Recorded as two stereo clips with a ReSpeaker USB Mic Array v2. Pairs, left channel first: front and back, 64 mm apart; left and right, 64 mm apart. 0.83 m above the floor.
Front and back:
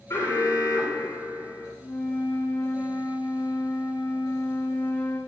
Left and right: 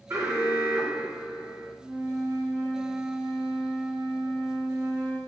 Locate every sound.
0.1 s an alarm: 45° right, 3 m
1.8 s a flute: 65° right, 5 m